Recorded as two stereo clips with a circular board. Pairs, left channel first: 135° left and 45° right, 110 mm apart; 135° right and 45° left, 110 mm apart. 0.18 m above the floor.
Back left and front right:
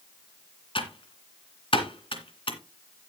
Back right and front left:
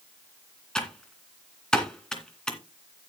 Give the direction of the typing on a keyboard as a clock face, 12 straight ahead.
7 o'clock.